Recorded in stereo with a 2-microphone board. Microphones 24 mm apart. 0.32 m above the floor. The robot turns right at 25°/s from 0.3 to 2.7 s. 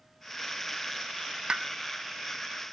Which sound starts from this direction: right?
A pop, at 1.5 s.